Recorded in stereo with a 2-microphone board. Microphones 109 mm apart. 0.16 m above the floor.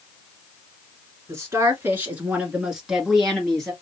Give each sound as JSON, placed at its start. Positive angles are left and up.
{"t": 1.3, "sound": "a woman speaking", "side_deg": -25, "distance_m": 2.5}